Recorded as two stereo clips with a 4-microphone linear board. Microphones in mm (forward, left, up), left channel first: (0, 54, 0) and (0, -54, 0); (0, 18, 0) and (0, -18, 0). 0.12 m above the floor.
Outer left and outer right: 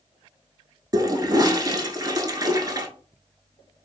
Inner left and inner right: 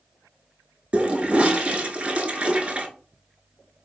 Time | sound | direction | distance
0.9 | a toilet flushing | 35° right (ahead or behind) | 0.5 m